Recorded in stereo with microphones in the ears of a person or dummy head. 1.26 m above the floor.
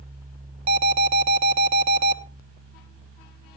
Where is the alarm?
40° right (ahead or behind), 1.0 m.